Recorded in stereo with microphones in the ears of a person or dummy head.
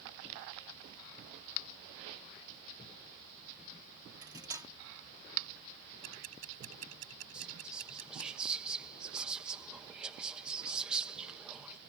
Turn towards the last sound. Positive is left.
turn(degrees=-5)  # may be behind; listen again after turning